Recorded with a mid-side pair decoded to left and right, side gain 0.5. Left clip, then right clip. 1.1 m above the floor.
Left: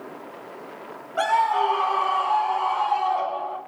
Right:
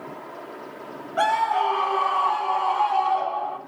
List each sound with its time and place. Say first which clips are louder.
1.2 s a scream: left 1 dB; 15° right, 3 m; by 3.6 s 40° right, 4.5 m